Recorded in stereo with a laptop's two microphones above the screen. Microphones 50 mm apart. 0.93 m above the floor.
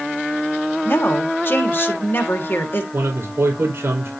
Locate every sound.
0.8 s a woman speaking: 45° left (ahead or behind), 1.6 m
2.9 s a man speaking: 50° right (ahead or behind), 4 m